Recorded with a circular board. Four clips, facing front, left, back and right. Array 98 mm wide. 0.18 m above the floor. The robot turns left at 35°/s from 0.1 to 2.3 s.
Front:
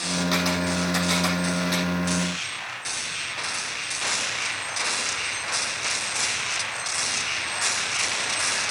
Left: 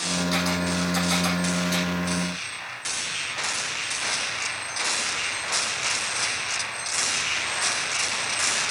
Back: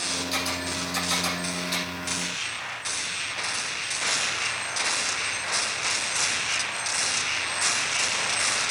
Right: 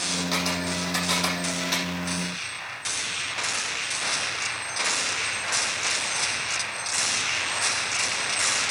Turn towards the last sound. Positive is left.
turn(degrees=-90)